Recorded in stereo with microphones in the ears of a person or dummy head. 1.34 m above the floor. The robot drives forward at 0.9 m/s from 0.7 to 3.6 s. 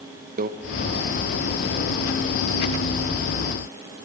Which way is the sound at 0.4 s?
45° right (ahead or behind).